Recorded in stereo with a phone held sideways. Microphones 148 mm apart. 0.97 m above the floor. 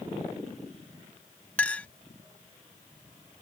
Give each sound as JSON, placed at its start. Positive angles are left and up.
{"t": 1.6, "sound": "a clink", "side_deg": 10}